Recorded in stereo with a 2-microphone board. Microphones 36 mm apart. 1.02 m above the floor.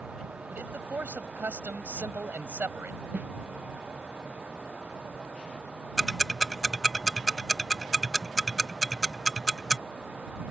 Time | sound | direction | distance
0.5 | a man speaking | 80° right | ?
3.1 | a snare drum | 50° right (ahead or behind) | ?
6.0 | ticking | centre (ahead or behind) | ?